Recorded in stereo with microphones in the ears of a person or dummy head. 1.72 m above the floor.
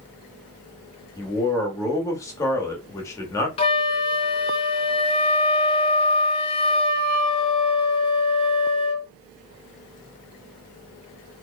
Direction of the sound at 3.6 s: 30° left (ahead or behind).